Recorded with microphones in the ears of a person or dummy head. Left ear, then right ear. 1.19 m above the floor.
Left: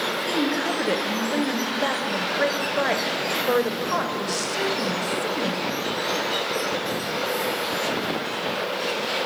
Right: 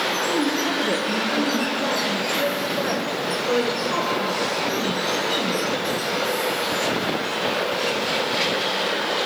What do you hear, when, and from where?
0.3 s a woman speaking: 50° left (ahead or behind), 0.9 m